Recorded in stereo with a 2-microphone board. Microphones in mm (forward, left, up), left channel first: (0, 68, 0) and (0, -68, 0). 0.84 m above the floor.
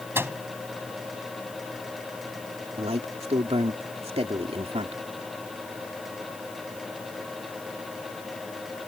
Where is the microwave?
15° right (ahead or behind).